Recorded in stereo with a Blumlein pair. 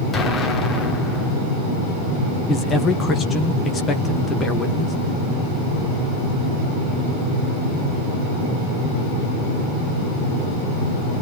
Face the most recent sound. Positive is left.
turn(degrees=20)